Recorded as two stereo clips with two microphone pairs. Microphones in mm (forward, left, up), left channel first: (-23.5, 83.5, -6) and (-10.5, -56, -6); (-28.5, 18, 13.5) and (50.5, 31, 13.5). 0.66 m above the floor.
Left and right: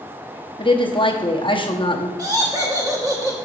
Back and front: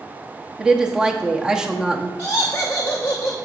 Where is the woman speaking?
85° left, 0.9 m.